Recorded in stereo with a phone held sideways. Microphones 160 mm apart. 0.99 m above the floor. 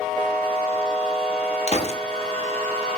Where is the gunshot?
45° left (ahead or behind), 0.9 m.